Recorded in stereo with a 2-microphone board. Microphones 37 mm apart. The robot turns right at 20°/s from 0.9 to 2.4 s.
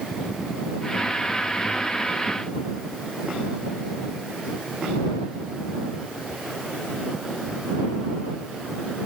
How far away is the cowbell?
No cowbell in this recording.